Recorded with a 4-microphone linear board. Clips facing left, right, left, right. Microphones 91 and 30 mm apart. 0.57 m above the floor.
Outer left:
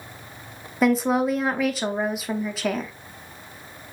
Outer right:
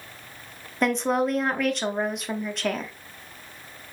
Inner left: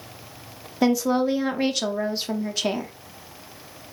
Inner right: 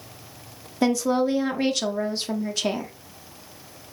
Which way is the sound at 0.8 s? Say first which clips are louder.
Outer left 3 dB, inner left 1 dB; 5° left (ahead or behind).